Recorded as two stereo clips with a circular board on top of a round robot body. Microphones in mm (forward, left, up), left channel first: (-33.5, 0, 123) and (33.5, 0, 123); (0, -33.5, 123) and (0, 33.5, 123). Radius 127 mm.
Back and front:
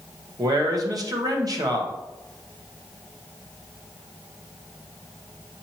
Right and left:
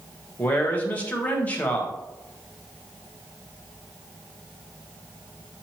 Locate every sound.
0.4 s a man speaking: 25° right, 1.4 m